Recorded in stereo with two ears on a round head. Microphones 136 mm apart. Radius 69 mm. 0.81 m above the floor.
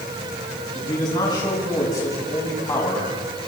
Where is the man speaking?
30° left (ahead or behind), 8 m; by 3.1 s 15° left (ahead or behind), 7.5 m.